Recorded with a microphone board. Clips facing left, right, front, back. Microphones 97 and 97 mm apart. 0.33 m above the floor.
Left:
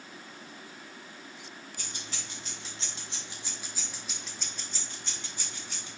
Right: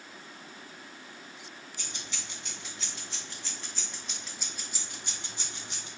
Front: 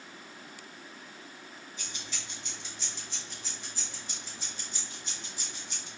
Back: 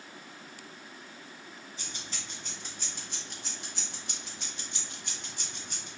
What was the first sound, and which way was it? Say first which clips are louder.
Keys jangling: right 1 dB, even; 130° left.